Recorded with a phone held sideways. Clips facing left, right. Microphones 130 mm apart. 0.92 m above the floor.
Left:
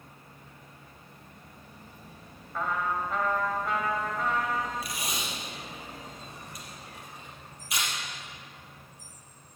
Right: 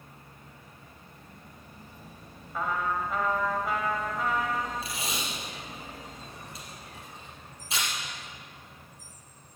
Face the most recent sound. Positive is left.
turn(degrees=-25)  # may be behind; listen again after turning